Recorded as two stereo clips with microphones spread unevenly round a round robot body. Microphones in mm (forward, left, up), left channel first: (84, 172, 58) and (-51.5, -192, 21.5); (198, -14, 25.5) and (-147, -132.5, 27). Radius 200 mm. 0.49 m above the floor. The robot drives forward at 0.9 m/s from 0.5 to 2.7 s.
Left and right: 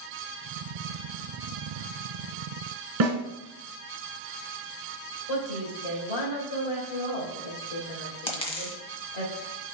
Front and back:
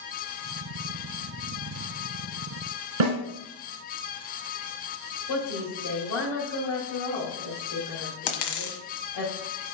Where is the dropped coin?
10° right, 1.4 m.